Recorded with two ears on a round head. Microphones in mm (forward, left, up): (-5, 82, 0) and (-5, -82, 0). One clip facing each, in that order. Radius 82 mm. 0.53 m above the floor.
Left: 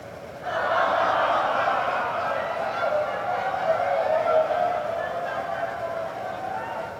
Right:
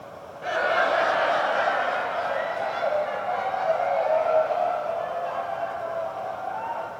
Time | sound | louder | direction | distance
0.4 | laughter | even | 30° right (ahead or behind) | 2.5 m